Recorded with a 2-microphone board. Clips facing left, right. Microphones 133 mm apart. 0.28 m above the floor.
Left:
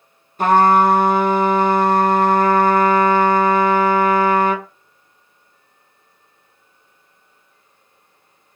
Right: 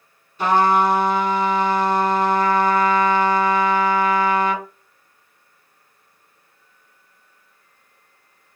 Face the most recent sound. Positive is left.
turn(degrees=50)  # may be behind; listen again after turning